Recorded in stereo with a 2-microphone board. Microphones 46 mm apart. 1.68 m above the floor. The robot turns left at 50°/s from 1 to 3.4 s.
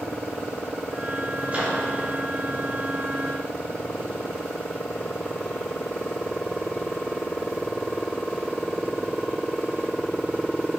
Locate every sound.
1.5 s a microwave: 30° right (ahead or behind), 3 m; by 1.8 s 50° right (ahead or behind), 3 m